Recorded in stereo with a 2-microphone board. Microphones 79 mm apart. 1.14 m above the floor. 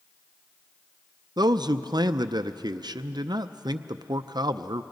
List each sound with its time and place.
1.4 s a man speaking: 60° right (ahead or behind), 0.5 m